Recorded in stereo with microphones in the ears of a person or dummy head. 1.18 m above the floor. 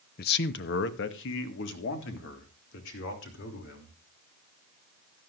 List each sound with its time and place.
0.2 s a man speaking: 45° left (ahead or behind), 0.7 m; by 4.0 s 70° left (ahead or behind), 3.5 m